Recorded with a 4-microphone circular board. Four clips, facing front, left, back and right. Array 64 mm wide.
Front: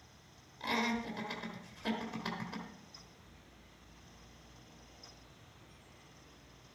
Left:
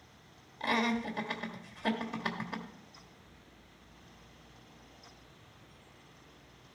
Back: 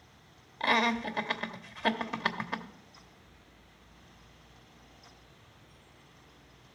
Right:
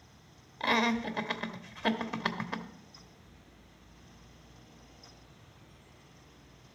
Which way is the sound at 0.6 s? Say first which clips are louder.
Right 3 dB, back 8 dB; 150° right.